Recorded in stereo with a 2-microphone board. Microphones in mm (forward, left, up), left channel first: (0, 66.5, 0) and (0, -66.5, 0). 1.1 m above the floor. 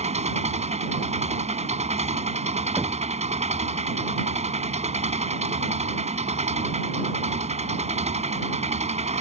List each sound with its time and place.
0.0 s an engine running: 55° right (ahead or behind)
2.8 s knocking: 15° right (ahead or behind)